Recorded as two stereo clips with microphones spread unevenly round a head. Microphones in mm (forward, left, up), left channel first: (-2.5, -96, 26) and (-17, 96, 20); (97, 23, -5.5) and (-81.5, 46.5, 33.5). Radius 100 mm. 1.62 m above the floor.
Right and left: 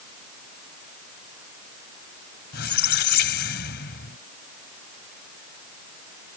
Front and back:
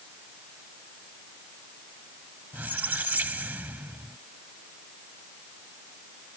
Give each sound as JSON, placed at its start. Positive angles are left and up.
{"t": 2.5, "sound": "a squeak", "azimuth_deg": -115}